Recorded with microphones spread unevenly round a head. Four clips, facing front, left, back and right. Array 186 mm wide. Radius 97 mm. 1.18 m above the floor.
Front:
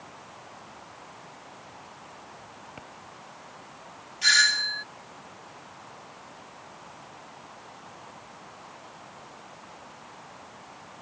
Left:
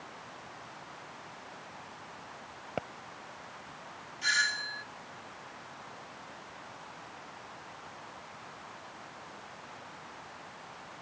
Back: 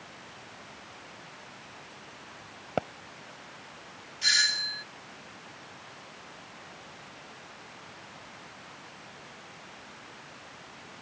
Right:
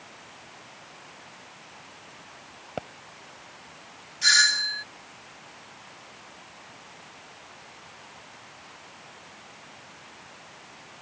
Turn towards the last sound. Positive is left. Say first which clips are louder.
# right 7 dB, front 7 dB
turn(degrees=-50)